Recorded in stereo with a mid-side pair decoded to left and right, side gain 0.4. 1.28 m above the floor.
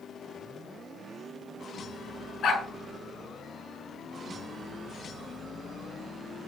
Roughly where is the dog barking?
Ahead left.